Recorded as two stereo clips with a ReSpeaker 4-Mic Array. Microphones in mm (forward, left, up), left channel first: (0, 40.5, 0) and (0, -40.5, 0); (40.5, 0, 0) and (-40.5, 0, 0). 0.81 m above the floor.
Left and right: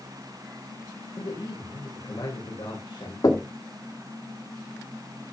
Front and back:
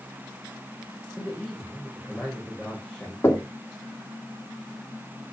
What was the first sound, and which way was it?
A man speaking, 85° left.